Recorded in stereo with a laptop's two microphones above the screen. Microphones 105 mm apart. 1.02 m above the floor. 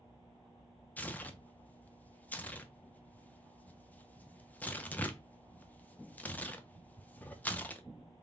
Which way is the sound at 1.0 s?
15° left (ahead or behind).